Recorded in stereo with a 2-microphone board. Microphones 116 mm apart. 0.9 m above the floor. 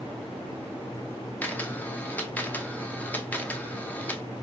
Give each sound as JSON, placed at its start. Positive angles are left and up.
{"t": 1.4, "sound": "a camera shutter", "side_deg": 15, "distance_m": 0.6}